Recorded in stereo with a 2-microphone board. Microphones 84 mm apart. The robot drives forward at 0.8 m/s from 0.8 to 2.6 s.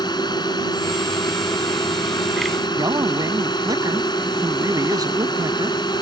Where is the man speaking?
55° right (ahead or behind).